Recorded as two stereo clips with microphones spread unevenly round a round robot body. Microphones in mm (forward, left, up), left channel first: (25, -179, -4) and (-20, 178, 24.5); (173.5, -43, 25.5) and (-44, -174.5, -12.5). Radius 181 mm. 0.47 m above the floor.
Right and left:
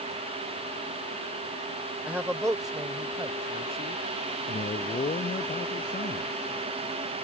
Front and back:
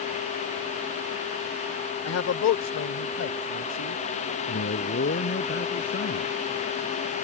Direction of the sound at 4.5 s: 10° right.